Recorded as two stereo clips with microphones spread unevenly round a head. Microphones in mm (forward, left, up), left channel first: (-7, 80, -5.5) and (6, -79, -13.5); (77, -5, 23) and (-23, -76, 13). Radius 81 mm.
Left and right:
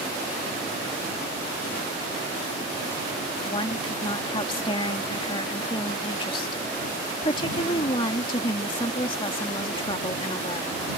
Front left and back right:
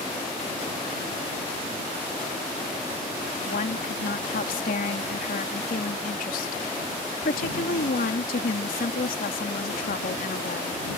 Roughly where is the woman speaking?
Ahead left.